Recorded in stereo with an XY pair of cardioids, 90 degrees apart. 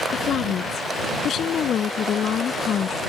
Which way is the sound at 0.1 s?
70° left.